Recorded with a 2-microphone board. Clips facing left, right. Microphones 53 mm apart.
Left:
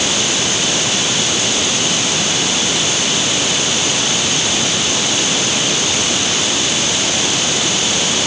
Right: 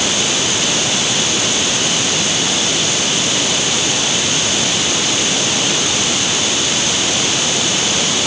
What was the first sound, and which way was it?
Only background noise.